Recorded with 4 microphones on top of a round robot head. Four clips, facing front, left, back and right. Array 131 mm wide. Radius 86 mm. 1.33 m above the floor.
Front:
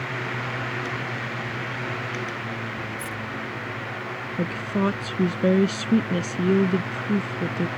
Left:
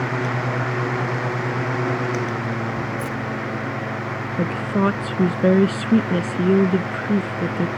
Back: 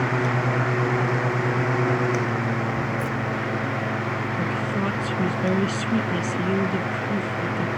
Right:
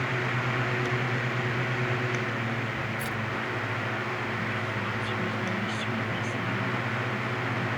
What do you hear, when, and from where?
3.0 s keys jangling: 20° right
4.4 s a woman speaking: 70° left